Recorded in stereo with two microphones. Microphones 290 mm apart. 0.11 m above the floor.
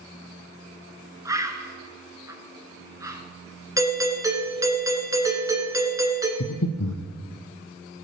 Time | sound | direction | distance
1.2 | a bird | 10° right (ahead or behind) | 1.1 m
3.8 | a doorbell | 10° right (ahead or behind) | 1.5 m
6.4 | breathing | 80° left | 1.0 m